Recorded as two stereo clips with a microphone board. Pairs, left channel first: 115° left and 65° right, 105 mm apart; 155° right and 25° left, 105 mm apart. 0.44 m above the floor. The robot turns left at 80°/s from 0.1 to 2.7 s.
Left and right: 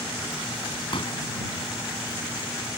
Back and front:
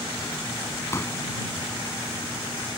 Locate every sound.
0.9 s a pop: 145° left; by 1.2 s 125° left